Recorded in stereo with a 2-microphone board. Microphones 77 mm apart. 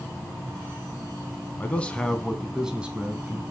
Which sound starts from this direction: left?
A man speaking, at 1.6 s.